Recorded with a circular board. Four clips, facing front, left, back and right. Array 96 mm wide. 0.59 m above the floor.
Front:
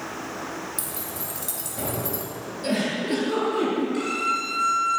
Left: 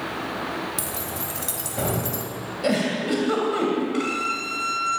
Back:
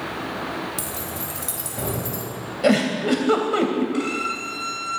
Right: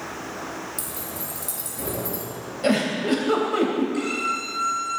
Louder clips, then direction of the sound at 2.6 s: Right 1 dB, back 7 dB; 175° right.